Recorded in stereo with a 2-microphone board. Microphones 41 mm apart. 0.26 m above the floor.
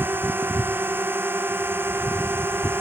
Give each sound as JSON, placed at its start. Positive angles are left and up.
{"t": 0.0, "sound": "a drone", "side_deg": -55}